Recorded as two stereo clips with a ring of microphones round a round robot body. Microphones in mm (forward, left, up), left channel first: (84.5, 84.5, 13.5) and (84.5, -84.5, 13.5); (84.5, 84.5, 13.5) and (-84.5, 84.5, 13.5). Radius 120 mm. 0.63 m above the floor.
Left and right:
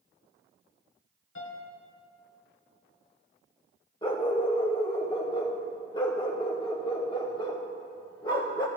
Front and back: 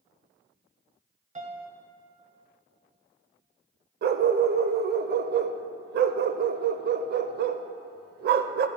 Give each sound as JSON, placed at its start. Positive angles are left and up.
{"t": 1.4, "sound": "a piano", "azimuth_deg": 130, "distance_m": 1.6}
{"t": 4.0, "sound": "a dog barking", "azimuth_deg": 160, "distance_m": 0.5}